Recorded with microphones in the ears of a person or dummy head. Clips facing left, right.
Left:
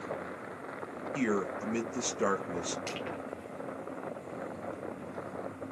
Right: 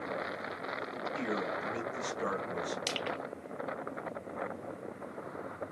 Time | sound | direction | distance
1.1 | a man speaking | 60° left (ahead or behind) | 1.1 m
2.9 | crushing | 45° right (ahead or behind) | 1.0 m